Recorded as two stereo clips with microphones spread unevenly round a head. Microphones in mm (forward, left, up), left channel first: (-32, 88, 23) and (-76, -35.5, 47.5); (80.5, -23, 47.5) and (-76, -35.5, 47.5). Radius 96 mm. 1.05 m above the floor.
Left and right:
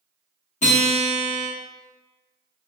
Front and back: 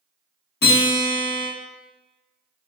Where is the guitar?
30° left, 0.8 m.